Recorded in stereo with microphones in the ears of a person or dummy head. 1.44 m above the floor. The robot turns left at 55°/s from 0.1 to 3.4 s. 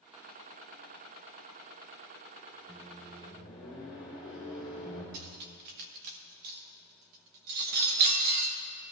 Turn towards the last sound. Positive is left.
turn(degrees=-55)  # may be behind; listen again after turning